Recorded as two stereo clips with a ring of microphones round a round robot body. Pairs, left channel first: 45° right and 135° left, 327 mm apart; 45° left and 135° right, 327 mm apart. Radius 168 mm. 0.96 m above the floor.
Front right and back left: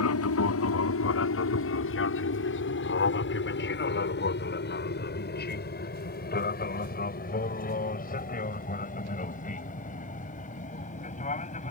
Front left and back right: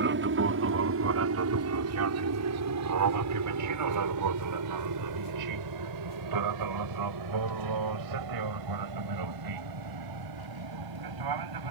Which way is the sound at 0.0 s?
85° right.